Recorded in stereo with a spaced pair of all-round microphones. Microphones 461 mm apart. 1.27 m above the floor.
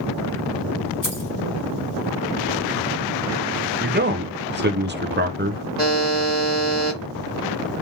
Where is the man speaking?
25° right (ahead or behind), 0.6 m.